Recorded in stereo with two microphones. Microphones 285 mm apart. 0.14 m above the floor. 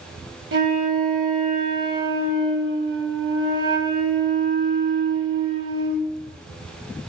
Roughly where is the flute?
Right.